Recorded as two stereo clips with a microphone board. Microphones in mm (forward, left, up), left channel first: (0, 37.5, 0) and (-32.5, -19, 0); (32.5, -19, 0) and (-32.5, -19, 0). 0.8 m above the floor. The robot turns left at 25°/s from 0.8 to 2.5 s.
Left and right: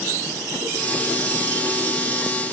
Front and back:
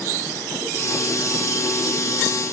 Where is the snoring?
No snoring in this recording.